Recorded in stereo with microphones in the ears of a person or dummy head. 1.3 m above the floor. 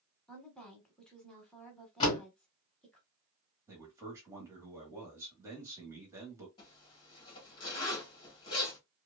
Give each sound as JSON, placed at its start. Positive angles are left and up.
{"t": 0.3, "sound": "a woman speaking", "side_deg": 0, "distance_m": 0.8}
{"t": 2.0, "sound": "a door slam", "side_deg": 35, "distance_m": 1.8}
{"t": 3.7, "sound": "a man speaking", "side_deg": -25, "distance_m": 0.8}
{"t": 6.6, "sound": "a zipper", "side_deg": 35, "distance_m": 1.4}